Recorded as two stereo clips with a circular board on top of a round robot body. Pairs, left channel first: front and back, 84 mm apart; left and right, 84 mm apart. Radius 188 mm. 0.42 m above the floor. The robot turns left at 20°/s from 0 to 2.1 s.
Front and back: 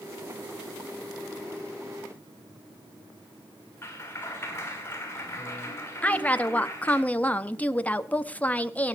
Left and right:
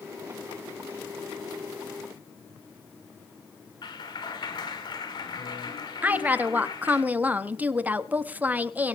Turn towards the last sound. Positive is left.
turn(degrees=-45)